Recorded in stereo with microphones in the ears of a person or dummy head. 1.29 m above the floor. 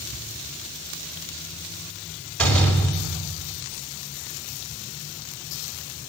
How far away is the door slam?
About 6 m.